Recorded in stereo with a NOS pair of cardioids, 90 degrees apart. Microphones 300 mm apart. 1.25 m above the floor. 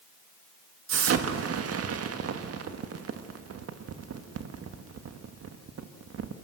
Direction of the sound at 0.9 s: 50° right.